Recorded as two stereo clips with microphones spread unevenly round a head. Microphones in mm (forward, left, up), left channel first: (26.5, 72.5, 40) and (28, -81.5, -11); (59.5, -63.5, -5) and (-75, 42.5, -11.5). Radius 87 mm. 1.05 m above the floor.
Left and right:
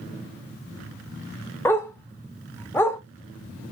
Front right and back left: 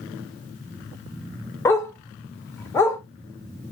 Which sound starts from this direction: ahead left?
A dog barking, at 1.6 s.